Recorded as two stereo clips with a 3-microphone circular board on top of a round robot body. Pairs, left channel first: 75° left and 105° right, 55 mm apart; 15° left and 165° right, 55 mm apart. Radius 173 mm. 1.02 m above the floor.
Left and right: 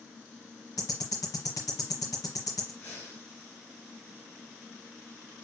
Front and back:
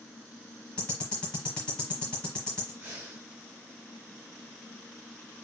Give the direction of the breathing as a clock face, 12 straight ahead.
7 o'clock.